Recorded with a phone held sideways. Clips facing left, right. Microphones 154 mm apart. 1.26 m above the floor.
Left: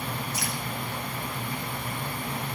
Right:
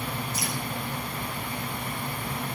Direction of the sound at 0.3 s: 70° left (ahead or behind).